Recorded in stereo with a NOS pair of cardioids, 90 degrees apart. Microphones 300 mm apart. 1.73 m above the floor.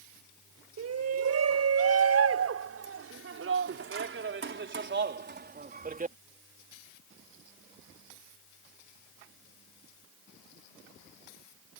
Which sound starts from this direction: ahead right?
A shout, at 0.8 s.